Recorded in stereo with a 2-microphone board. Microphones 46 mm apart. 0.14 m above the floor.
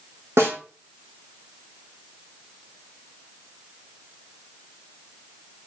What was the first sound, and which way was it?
A snare drum, 70° right (ahead or behind).